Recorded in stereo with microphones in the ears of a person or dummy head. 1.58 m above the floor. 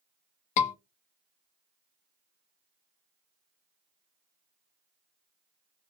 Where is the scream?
50° left (ahead or behind), 0.7 m.